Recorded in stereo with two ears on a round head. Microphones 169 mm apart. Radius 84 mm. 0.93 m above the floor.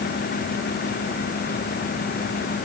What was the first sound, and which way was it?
Only background noise.